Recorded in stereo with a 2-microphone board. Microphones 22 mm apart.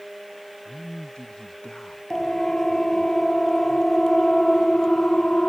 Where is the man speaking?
50° left (ahead or behind).